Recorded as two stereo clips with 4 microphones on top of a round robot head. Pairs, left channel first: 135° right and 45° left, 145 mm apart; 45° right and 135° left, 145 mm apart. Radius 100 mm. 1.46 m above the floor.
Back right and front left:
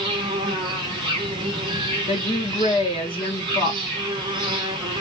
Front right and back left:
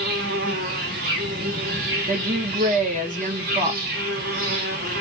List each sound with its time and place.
0.0 s an insect: 110° left, 1.3 m
2.1 s a woman speaking: 170° left, 1.8 m